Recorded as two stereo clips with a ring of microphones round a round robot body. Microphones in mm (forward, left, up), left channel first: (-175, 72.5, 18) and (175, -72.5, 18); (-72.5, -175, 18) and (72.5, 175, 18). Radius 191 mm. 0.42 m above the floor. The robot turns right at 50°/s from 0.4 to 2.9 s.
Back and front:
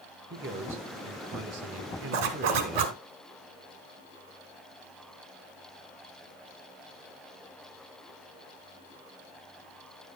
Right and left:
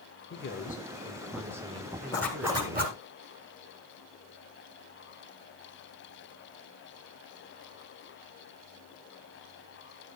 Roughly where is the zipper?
Ahead right.